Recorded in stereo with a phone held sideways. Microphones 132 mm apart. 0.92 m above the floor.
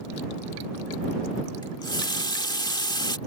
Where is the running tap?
30° left (ahead or behind).